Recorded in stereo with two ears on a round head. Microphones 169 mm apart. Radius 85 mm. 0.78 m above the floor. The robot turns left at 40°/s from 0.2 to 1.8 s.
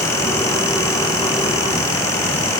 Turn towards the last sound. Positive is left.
No sound to turn to.